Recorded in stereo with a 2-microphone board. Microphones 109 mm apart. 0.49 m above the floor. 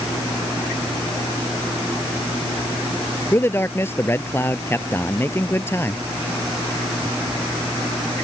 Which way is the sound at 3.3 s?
20° left (ahead or behind).